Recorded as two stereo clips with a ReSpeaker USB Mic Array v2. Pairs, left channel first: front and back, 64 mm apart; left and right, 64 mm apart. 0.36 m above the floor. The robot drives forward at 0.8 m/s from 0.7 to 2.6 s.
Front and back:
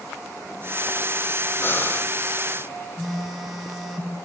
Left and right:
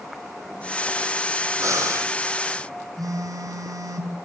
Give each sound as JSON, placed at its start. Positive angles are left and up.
{"t": 1.6, "sound": "breathing", "azimuth_deg": -55, "distance_m": 3.0}
{"t": 3.0, "sound": "a phone buzzing", "azimuth_deg": -90, "distance_m": 4.0}